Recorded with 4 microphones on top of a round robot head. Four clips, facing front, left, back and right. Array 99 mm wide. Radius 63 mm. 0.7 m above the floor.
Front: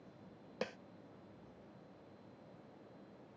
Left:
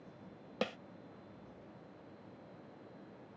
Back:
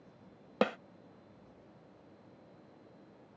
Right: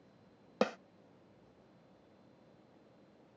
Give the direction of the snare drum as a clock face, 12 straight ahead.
5 o'clock.